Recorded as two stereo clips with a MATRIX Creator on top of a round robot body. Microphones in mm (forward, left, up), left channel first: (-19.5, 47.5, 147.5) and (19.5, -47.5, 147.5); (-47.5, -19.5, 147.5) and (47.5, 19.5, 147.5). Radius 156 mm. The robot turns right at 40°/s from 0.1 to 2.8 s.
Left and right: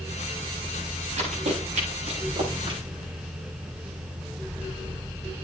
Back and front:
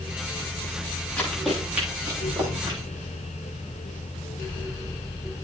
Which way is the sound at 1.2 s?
80° right.